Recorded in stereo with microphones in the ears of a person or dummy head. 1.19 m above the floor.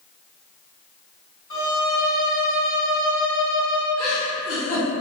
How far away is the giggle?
About 1.5 m.